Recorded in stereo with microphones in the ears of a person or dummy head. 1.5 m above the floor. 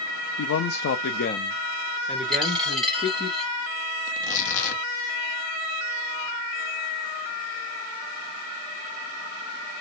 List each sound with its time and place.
0.4 s a man speaking: 80° left, 0.6 m; by 3.3 s 10° right (ahead or behind), 1.4 m
2.3 s a dropped coin: centre (ahead or behind), 1.7 m
4.1 s tearing paper: 45° left (ahead or behind), 0.8 m